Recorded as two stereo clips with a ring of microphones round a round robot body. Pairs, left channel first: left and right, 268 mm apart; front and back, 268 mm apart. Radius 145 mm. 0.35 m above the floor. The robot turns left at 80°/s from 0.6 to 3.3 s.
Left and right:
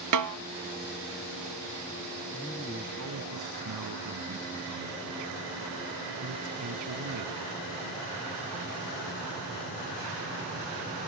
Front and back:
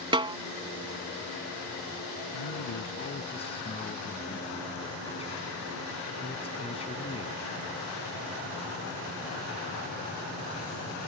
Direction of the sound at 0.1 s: 105° right.